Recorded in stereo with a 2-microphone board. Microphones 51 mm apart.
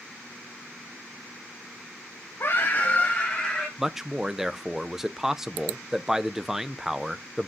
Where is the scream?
60° left (ahead or behind), 0.9 m; by 3.7 s 10° left (ahead or behind), 2 m.